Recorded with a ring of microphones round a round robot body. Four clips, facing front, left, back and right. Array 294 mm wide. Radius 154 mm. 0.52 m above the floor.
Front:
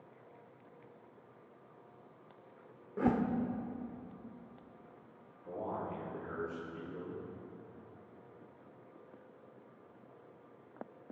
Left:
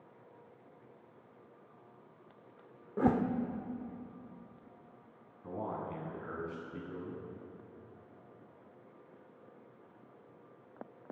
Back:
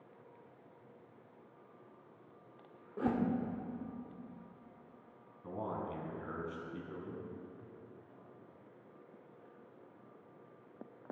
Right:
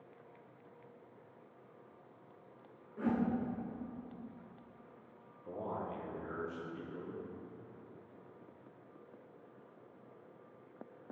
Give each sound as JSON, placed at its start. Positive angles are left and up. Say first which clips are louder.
{"t": 3.0, "sound": "a whoosh", "louder": "left 5 dB, front 3 dB", "azimuth_deg": 80, "distance_m": 1.1}
{"t": 5.4, "sound": "a man speaking", "louder": "left 2 dB, front 1 dB", "azimuth_deg": 130, "distance_m": 4.0}